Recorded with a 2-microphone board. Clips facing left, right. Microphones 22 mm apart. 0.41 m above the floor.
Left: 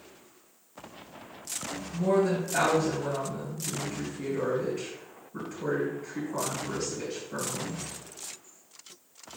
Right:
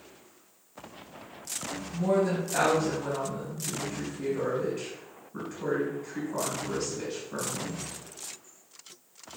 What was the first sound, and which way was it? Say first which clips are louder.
A woman speaking: left 1 dB; centre (ahead or behind).